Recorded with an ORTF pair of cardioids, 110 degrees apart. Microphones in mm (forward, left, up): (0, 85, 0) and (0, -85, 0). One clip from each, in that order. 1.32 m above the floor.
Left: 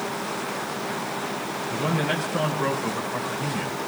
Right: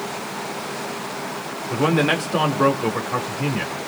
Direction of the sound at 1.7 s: 70° right.